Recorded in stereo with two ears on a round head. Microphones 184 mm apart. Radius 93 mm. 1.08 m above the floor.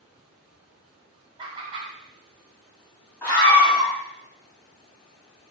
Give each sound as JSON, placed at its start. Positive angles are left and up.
{"t": 1.4, "sound": "laughter", "side_deg": -25, "distance_m": 0.8}
{"t": 3.2, "sound": "a scream", "side_deg": 10, "distance_m": 2.0}